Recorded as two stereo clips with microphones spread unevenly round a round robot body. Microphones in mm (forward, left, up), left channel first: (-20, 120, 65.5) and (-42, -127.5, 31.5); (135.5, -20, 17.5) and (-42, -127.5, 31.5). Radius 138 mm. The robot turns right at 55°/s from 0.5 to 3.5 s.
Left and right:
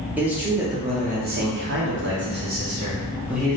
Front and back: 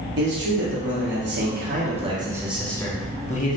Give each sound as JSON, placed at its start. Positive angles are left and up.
{"t": 0.2, "sound": "a man speaking", "azimuth_deg": -170, "distance_m": 0.9}